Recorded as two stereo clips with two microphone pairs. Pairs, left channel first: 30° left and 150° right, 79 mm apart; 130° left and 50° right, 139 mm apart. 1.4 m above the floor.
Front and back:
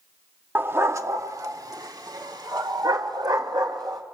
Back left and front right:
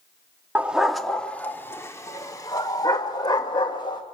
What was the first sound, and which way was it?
A dog barking, 120° right.